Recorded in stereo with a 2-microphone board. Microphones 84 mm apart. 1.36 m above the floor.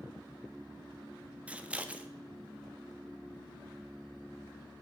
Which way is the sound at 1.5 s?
15° right (ahead or behind).